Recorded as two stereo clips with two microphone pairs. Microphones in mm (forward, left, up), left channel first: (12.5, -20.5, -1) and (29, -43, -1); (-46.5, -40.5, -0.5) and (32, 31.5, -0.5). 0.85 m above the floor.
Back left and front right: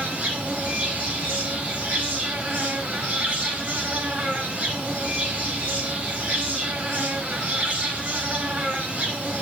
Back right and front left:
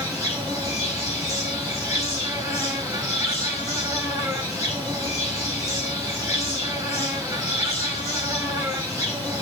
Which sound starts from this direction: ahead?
An insect, at 0.0 s.